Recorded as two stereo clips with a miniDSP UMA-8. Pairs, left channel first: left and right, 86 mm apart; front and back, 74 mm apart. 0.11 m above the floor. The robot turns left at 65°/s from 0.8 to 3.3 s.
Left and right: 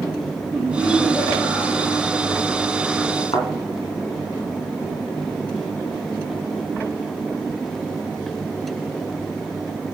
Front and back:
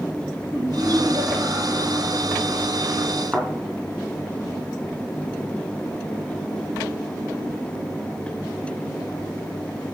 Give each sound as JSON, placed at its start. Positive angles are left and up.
{"t": 0.5, "sound": "laughter", "azimuth_deg": -160, "distance_m": 1.8}
{"t": 3.3, "sound": "a thud", "azimuth_deg": 100, "distance_m": 2.5}